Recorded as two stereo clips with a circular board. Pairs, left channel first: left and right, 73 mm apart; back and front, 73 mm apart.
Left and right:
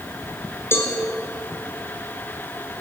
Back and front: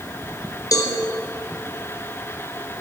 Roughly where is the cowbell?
Behind left.